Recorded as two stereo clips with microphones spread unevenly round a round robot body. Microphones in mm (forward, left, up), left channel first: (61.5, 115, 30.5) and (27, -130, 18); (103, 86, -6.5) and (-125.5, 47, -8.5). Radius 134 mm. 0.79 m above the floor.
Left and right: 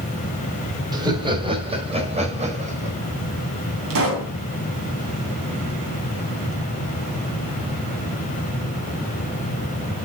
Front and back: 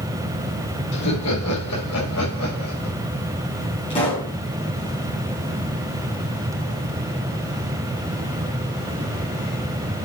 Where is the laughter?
25° right, 3.5 m; by 3.0 s 35° right, 5 m.